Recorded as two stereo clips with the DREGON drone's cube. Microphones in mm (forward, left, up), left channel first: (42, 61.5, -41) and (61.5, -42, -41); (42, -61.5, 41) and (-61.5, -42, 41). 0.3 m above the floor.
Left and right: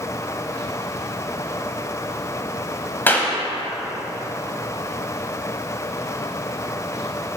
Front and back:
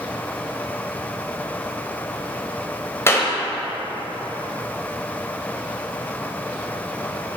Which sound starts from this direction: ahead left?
A clap, at 3.1 s.